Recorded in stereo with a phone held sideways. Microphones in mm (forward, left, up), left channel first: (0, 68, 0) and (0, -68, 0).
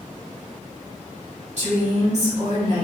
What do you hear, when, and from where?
1.6 s a woman speaking: 55° right (ahead or behind), 0.9 m